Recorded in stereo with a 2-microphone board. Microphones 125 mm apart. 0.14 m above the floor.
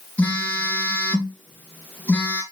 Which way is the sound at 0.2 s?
15° left (ahead or behind).